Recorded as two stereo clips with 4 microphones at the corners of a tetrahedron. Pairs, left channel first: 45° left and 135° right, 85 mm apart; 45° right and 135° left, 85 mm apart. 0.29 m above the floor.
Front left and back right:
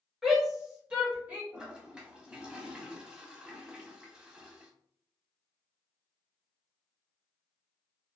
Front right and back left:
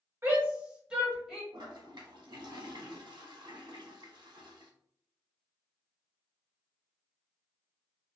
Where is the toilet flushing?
150° left, 0.7 m.